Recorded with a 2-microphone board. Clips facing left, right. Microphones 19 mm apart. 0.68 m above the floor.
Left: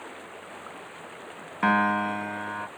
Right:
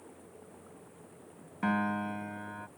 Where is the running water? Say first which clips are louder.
Left 11 dB; 50° left (ahead or behind).